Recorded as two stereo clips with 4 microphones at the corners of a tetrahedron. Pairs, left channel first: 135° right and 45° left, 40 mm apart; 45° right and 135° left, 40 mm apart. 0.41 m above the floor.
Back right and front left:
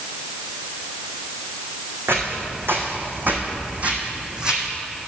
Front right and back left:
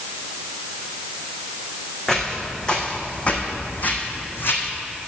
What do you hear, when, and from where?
2.1 s footsteps: 35° left, 1.8 m; by 4.7 s 30° right, 1.4 m